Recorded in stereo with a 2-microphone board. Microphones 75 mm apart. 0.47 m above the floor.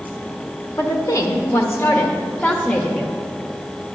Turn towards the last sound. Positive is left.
turn(degrees=15)  # may be behind; listen again after turning